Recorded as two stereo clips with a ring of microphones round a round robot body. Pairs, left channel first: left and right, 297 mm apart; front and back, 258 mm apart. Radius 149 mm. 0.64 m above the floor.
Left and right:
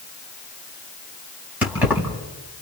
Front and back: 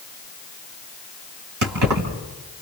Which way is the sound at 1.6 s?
175° right.